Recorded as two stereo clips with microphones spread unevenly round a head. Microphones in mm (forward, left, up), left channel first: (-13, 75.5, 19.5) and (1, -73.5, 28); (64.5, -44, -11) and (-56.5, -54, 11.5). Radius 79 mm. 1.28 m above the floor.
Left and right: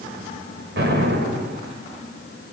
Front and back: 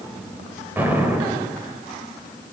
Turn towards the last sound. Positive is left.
turn(degrees=-100)